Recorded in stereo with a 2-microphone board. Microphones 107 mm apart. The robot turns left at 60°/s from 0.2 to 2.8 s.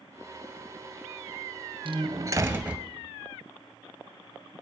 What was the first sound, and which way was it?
A door slam, 120° right.